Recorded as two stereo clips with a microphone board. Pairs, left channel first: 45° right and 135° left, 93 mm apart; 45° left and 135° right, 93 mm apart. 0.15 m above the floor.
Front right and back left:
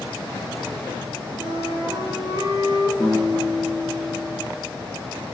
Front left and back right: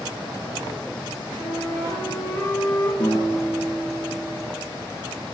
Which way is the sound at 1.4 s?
105° left.